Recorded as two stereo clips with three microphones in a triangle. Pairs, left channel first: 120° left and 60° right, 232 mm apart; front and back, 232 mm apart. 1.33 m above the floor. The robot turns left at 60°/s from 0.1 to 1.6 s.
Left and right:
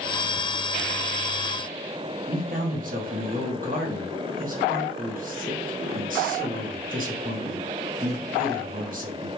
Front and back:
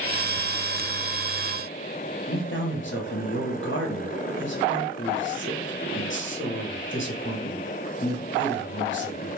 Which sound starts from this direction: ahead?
A man speaking, at 2.3 s.